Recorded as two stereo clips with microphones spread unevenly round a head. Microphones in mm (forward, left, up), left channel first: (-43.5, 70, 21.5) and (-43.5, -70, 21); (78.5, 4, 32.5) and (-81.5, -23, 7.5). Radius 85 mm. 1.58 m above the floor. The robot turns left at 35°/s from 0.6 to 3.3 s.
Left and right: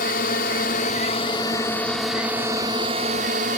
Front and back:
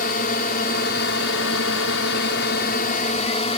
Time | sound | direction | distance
0.0 | a drone | 50° left | ?